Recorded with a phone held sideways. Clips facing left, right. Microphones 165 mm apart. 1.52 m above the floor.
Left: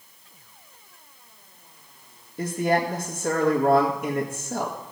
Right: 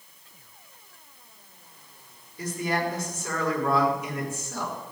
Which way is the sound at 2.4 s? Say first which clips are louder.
Left 5 dB; 55° left (ahead or behind).